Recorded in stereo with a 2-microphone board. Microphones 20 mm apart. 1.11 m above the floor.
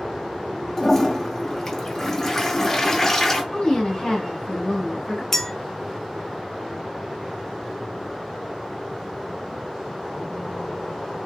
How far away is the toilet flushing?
About 0.7 m.